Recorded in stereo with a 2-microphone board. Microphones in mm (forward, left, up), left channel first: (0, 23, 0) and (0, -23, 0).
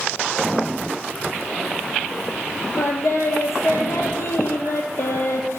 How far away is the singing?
About 0.6 m.